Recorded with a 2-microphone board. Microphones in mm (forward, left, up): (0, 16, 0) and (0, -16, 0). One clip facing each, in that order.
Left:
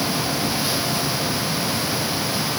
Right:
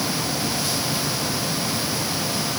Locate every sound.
Only background noise.